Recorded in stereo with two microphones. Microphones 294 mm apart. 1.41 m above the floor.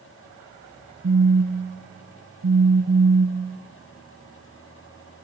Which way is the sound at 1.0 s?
60° right (ahead or behind).